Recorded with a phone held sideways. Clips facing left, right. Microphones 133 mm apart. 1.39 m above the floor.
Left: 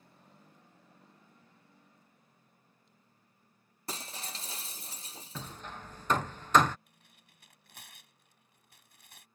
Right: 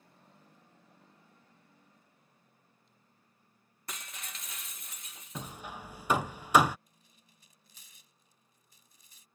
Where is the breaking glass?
30° left (ahead or behind).